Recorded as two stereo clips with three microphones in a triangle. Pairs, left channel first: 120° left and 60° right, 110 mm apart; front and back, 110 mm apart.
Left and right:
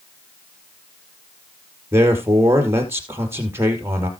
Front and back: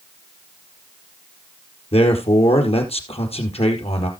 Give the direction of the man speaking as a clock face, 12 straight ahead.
12 o'clock.